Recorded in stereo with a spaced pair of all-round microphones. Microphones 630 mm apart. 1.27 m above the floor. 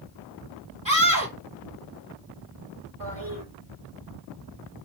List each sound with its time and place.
0.8 s a scream: 15° right (ahead or behind), 1.8 m
3.0 s a toilet flushing: 35° right (ahead or behind), 5 m